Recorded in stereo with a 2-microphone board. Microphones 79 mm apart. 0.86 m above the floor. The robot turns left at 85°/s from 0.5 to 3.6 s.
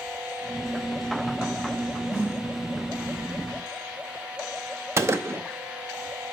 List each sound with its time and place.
2.1 s a snare drum: 45° left (ahead or behind), 1.6 m; by 2.5 s 20° left (ahead or behind), 1.6 m
5.0 s a gunshot: 35° right (ahead or behind), 0.6 m